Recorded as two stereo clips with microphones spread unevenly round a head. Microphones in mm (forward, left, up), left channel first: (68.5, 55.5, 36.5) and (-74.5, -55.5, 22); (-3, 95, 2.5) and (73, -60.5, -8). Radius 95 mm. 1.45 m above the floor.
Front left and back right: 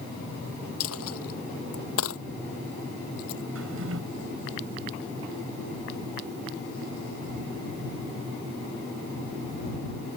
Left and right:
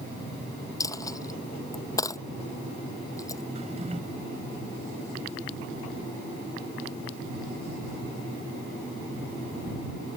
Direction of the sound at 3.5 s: 125° right.